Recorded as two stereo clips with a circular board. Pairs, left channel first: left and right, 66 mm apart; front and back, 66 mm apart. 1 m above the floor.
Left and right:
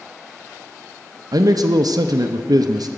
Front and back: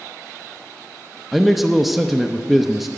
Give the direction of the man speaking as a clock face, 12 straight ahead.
3 o'clock.